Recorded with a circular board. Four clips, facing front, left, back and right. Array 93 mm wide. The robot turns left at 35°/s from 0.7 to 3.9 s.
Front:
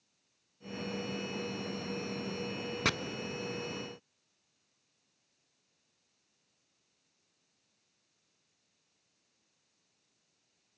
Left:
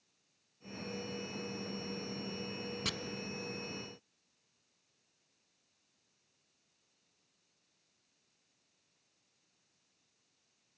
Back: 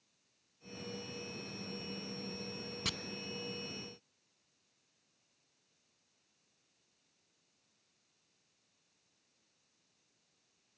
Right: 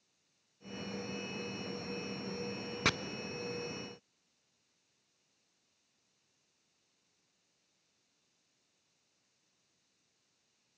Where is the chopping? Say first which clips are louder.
Right 11 dB, front 11 dB; 45° right, 0.5 m.